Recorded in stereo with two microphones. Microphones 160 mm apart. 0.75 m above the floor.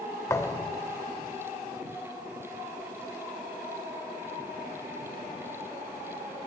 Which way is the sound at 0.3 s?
20° left (ahead or behind).